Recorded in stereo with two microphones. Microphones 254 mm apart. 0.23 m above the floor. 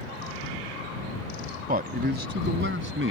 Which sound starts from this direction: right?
A man speaking, at 1.7 s.